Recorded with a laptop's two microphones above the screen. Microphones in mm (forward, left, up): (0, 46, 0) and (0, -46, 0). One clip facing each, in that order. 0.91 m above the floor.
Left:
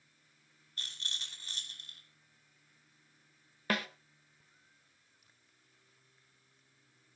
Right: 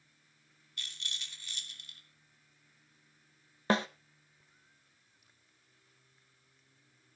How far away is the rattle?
About 2.5 m.